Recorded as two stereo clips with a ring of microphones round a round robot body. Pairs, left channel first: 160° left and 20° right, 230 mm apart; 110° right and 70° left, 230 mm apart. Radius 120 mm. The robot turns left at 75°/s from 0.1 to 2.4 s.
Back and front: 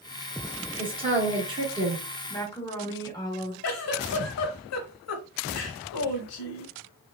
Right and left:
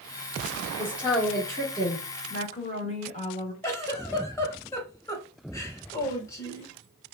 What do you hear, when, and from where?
0.8 s a woman speaking: 10° left, 1.2 m; by 2.0 s 85° right, 1.2 m
2.3 s a woman speaking: 135° right, 1.0 m; by 3.5 s 145° right, 1.0 m
3.6 s a giggle: 170° left, 0.6 m